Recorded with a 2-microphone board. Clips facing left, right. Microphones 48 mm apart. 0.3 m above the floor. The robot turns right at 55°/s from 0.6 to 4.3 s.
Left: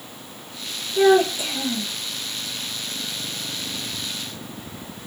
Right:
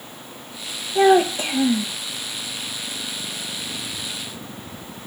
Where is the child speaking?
75° right, 1.1 m; by 1.9 s 25° right, 1.1 m.